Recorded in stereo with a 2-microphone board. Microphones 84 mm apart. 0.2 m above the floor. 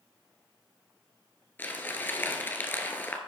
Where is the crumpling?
25° left (ahead or behind), 1.3 m.